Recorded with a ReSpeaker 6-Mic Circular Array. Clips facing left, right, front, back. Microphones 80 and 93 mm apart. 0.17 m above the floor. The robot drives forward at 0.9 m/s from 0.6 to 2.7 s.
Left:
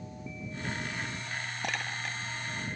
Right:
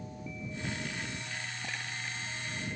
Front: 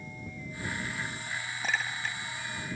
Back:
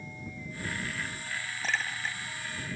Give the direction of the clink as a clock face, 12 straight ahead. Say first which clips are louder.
Left 5 dB, even; 9 o'clock.